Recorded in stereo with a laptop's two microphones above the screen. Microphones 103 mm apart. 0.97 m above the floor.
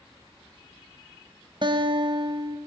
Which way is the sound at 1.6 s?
50° right (ahead or behind).